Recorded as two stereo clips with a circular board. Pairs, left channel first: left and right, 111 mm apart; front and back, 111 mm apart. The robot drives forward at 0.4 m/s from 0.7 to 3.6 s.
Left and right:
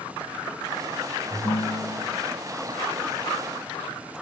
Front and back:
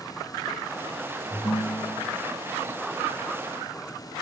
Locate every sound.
1.3 s a ringtone: 35° left, 2.5 m; by 2.2 s 40° left, 2.5 m